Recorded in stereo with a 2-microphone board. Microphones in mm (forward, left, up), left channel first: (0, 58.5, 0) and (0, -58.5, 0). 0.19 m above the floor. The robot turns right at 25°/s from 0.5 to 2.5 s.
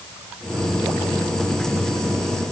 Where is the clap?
No clap in this recording.